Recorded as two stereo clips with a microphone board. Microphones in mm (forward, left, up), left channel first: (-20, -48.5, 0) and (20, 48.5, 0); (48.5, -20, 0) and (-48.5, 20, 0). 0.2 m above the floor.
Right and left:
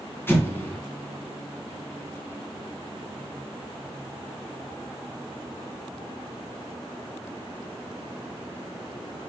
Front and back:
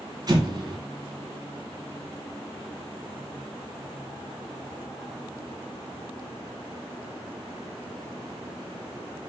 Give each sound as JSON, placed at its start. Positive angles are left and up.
{"t": 0.3, "sound": "an explosion", "azimuth_deg": -175, "distance_m": 2.0}